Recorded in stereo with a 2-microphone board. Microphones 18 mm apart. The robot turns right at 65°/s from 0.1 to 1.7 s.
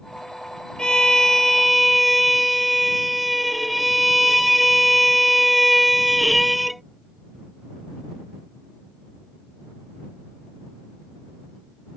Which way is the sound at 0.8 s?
120° left.